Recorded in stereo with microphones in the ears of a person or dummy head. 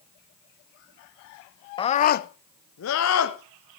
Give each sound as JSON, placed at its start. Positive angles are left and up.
{"t": 1.8, "sound": "a scream", "side_deg": 20, "distance_m": 0.7}